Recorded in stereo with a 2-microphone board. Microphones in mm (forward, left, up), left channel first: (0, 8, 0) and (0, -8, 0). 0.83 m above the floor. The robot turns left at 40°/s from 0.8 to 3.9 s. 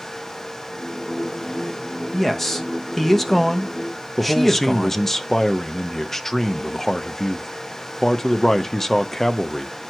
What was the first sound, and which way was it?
A man speaking, 20° left (ahead or behind).